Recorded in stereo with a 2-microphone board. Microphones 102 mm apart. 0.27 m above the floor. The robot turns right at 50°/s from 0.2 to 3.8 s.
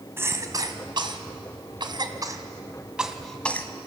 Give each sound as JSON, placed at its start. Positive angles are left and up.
{"t": 0.2, "sound": "a cough", "side_deg": -25, "distance_m": 2.0}